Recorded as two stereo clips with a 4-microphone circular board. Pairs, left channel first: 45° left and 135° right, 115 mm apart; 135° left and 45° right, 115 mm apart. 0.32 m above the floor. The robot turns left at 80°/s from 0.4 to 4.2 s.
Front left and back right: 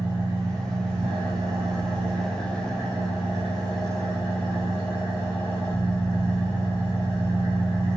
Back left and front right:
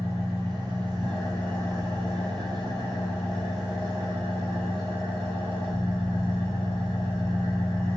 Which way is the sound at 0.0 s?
75° right.